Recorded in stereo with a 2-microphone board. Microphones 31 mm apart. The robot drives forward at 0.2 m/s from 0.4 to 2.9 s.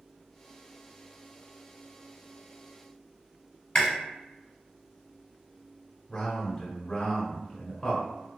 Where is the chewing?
35° left (ahead or behind), 1.3 m.